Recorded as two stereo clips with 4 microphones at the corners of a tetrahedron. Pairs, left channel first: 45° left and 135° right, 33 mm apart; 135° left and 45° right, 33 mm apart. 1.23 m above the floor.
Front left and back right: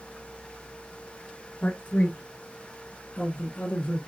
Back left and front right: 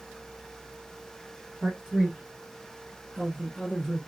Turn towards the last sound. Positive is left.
turn(degrees=45)